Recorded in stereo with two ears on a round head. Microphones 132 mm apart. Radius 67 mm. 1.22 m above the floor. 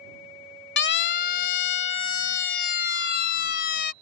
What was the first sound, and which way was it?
A siren, 75° left (ahead or behind).